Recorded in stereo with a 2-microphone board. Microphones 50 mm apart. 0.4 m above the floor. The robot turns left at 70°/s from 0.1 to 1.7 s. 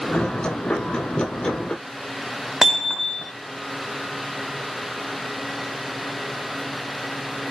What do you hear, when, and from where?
2.6 s hammering: 10° right (ahead or behind), 2.5 m